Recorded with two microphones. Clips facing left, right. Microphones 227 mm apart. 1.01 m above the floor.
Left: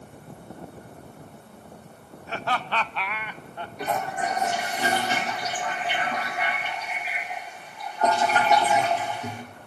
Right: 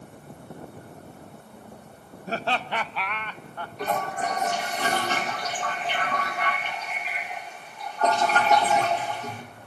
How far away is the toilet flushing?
About 3.5 m.